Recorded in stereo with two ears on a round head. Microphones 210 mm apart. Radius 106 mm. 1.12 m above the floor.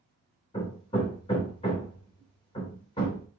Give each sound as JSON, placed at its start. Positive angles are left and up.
{"t": 0.5, "sound": "hammering", "side_deg": 25, "distance_m": 2.5}